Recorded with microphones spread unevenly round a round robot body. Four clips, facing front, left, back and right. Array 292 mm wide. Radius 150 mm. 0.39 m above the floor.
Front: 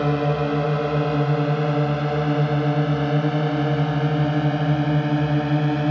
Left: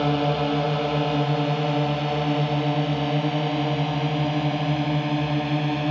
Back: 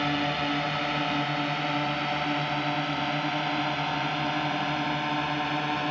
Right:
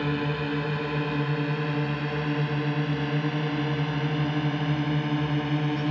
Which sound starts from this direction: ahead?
A drone, at 0.0 s.